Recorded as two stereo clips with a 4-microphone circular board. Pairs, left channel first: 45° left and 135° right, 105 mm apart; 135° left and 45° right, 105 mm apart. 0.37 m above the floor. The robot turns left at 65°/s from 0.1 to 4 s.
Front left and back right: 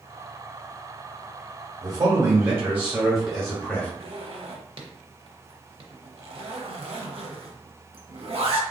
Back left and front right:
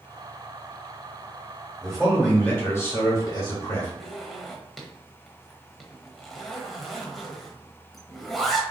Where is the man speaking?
130° right, 1.1 m; by 3.9 s 95° left, 1.1 m.